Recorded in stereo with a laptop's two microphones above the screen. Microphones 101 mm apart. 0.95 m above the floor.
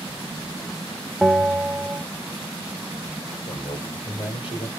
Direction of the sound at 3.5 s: 75° left (ahead or behind).